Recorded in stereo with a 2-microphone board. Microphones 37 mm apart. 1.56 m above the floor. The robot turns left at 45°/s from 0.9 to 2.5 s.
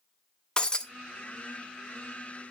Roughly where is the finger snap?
No finger snap in this recording.